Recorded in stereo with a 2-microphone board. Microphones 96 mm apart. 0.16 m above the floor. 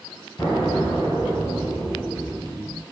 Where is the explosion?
40° left (ahead or behind), 1.1 m.